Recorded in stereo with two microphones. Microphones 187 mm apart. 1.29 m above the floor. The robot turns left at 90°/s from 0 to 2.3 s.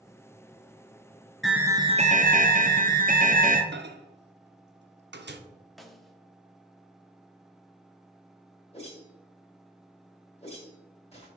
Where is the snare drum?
Centre (ahead or behind), 0.8 m.